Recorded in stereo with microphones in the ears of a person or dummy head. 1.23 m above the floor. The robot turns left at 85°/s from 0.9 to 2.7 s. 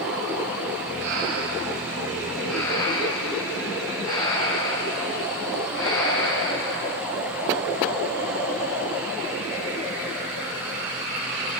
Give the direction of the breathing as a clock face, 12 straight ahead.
2 o'clock.